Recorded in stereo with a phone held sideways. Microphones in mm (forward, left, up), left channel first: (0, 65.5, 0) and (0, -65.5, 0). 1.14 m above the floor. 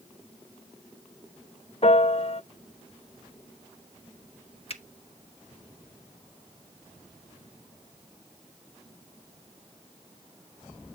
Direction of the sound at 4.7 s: 50° left (ahead or behind).